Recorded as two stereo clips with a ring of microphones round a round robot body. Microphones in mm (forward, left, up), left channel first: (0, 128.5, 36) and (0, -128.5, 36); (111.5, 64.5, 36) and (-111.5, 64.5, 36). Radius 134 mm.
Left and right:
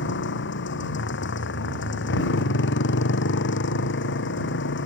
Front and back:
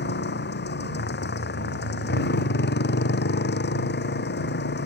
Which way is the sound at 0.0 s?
40° left.